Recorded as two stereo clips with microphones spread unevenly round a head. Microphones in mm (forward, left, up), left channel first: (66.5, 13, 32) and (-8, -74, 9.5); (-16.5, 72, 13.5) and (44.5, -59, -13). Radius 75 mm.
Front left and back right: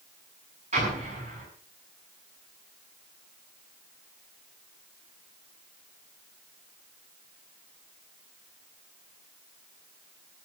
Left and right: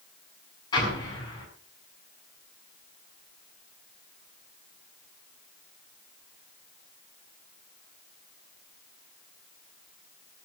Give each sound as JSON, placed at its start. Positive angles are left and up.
{"t": 0.7, "sound": "an explosion", "azimuth_deg": 180, "distance_m": 7.5}